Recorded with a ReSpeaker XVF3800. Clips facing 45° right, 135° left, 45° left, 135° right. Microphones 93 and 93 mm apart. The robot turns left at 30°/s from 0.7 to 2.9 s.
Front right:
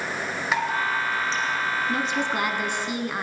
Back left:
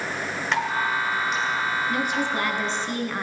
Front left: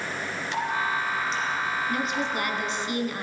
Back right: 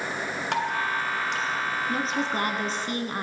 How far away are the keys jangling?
I don't hear keys jangling.